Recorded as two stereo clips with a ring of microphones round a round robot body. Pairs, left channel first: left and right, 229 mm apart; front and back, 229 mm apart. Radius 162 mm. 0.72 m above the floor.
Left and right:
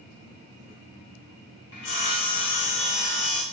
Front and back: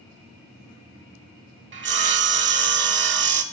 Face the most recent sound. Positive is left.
turn(degrees=140)